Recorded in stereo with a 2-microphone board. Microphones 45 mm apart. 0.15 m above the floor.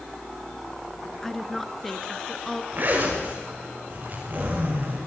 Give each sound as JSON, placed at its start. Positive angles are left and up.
{"t": 1.2, "sound": "a woman speaking", "side_deg": 5, "distance_m": 1.9}
{"t": 2.7, "sound": "a zipper", "side_deg": -40, "distance_m": 9.0}